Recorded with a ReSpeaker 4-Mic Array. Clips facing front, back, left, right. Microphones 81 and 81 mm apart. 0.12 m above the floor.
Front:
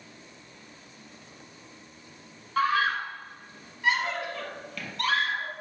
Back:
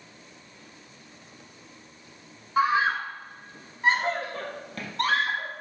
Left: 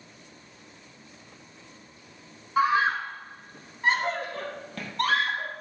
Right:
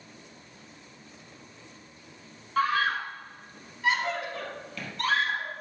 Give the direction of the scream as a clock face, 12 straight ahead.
7 o'clock.